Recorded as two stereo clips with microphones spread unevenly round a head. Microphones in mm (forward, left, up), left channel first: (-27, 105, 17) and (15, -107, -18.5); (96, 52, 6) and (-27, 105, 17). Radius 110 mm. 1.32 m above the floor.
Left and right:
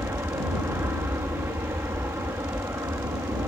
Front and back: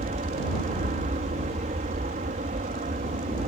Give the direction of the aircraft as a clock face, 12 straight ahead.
5 o'clock.